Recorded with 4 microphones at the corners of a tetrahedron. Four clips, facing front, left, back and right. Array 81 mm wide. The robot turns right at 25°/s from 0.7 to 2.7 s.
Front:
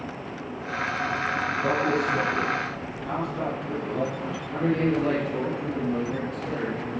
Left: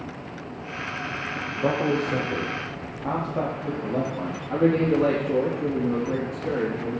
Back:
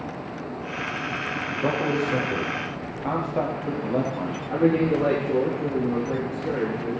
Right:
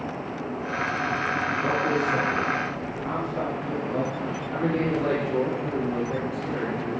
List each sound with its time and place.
1.6 s a man speaking: 130° left, 5 m; by 4.4 s 160° left, 5 m
4.5 s a man speaking: 130° left, 6 m